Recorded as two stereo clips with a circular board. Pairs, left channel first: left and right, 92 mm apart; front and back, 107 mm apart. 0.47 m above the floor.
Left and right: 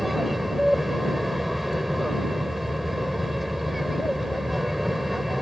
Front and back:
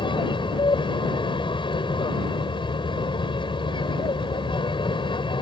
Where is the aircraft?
Straight ahead.